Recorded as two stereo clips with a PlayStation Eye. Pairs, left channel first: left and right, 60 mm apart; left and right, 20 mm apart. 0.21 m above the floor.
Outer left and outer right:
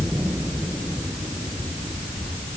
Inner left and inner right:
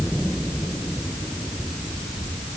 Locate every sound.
Only background noise.